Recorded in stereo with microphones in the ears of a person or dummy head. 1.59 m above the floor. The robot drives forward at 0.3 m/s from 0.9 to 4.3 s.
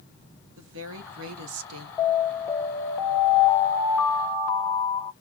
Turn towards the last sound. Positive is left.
turn(degrees=0)  # may be behind; listen again after turning